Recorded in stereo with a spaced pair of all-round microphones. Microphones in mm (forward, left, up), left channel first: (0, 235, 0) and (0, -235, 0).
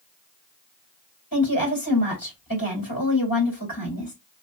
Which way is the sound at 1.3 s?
45° left (ahead or behind).